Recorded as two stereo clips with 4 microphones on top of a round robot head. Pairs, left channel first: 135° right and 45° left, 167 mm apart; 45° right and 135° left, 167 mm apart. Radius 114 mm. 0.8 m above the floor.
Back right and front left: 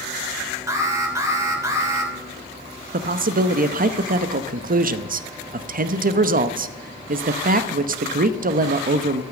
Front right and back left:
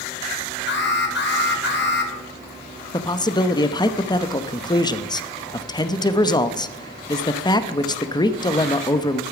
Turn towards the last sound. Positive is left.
turn(degrees=20)